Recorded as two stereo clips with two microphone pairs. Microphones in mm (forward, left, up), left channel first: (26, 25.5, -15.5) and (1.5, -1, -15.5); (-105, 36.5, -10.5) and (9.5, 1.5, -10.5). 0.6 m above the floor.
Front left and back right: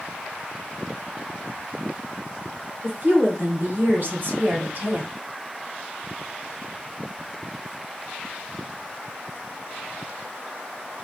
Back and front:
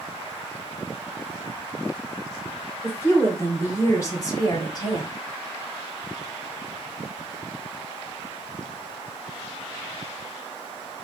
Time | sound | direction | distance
2.8 | a woman speaking | 130° right | 2.5 m